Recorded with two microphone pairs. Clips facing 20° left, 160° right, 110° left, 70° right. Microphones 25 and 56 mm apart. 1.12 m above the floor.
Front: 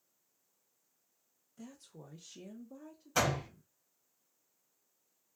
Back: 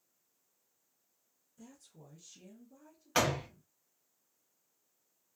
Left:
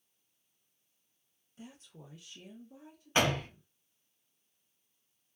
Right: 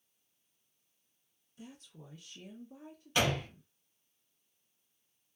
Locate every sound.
1.6 s a woman speaking: 50° left, 0.8 m; by 3.7 s 45° right, 0.9 m
3.1 s a door slam: 170° left, 0.9 m